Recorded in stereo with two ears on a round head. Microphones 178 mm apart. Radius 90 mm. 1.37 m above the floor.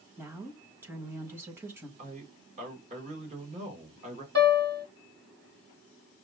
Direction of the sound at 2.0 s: 35° right (ahead or behind).